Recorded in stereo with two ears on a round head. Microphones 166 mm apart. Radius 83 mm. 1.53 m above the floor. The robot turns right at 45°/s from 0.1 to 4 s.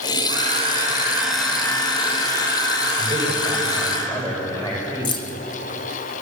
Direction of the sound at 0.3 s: 50° right.